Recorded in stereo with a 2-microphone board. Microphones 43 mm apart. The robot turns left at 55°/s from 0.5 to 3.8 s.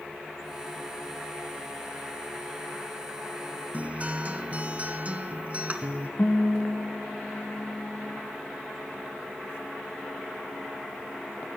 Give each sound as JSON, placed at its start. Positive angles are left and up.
{"t": 3.7, "sound": "a guitar", "side_deg": -40, "distance_m": 0.6}
{"t": 6.2, "sound": "a guitar", "side_deg": 50, "distance_m": 1.0}